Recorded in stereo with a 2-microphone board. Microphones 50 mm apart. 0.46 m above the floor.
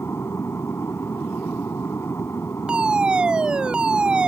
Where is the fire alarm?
15° right (ahead or behind).